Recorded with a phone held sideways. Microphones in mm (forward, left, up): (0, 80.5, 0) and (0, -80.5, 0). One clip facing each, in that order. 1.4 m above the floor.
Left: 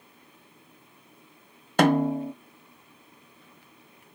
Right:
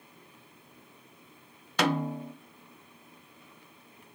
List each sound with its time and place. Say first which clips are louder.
1.8 s a snare drum: left 8 dB; 50° left (ahead or behind), 0.7 m